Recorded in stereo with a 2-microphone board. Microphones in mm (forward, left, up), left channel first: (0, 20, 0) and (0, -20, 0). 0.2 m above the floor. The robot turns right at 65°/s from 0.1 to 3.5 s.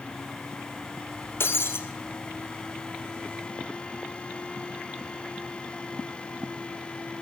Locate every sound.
1.4 s breaking glass: 65° left (ahead or behind), 2.5 m; by 1.8 s 80° left, 2.5 m